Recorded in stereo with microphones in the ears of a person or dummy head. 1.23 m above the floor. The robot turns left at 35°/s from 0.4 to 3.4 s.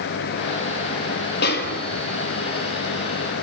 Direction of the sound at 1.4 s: 60° left (ahead or behind).